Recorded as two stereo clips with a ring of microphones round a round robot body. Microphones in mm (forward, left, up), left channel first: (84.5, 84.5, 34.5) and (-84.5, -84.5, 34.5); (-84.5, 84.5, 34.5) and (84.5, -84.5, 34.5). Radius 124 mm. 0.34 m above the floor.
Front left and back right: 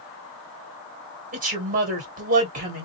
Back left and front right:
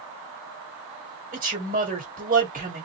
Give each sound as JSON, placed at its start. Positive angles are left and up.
{"t": 1.3, "sound": "a woman speaking", "azimuth_deg": -90, "distance_m": 1.9}